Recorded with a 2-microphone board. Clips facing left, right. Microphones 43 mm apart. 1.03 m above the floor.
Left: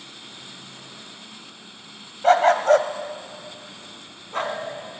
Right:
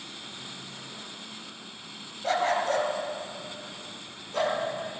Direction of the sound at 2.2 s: 55° left (ahead or behind).